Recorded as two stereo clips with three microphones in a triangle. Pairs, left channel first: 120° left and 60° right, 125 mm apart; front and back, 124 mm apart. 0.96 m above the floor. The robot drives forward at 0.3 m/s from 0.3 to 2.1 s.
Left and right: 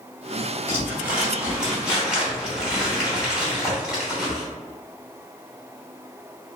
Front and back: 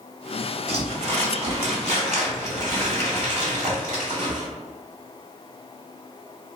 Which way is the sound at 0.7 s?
135° right.